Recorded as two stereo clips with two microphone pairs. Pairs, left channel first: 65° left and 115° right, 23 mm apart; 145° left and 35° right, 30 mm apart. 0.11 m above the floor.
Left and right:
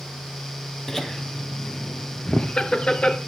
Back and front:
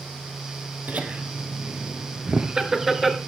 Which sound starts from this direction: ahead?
Laughter, at 0.9 s.